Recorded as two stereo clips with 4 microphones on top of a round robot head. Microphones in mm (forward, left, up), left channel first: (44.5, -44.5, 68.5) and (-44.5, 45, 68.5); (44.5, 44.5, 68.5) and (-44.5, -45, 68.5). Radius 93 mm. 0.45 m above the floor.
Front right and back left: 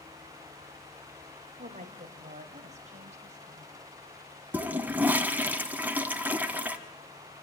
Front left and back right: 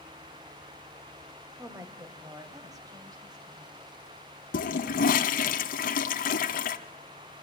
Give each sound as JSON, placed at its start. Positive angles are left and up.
{"t": 1.6, "sound": "a woman speaking", "azimuth_deg": 160, "distance_m": 2.5}
{"t": 4.5, "sound": "a toilet flushing", "azimuth_deg": 55, "distance_m": 1.3}